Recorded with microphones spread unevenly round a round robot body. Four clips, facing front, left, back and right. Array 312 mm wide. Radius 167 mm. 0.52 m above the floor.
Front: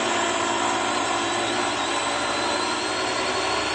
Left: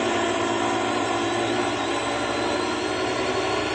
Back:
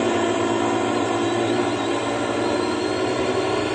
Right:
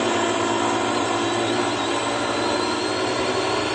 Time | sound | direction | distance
0.0 | a drone | 165° right | ?